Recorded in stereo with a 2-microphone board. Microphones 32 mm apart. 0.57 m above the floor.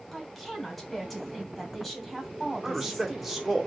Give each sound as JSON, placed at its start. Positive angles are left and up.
{"t": 0.1, "sound": "a woman speaking", "side_deg": 5, "distance_m": 3.0}
{"t": 2.6, "sound": "a man speaking", "side_deg": -5, "distance_m": 1.6}